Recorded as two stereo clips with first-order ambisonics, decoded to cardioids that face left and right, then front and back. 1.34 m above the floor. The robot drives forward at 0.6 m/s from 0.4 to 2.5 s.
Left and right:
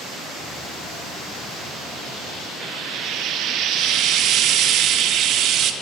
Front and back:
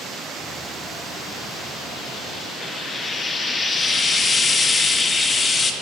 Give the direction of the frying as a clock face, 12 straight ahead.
2 o'clock.